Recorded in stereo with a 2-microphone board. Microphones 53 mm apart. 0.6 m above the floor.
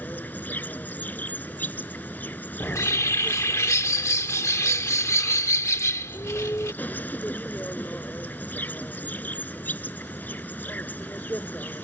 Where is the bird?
65° left (ahead or behind).